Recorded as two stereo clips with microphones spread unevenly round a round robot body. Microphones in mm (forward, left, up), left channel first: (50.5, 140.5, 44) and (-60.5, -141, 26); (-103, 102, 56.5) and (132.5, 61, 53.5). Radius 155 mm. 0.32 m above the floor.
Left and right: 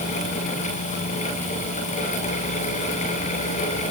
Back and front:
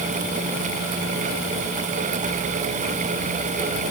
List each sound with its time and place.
Only background noise.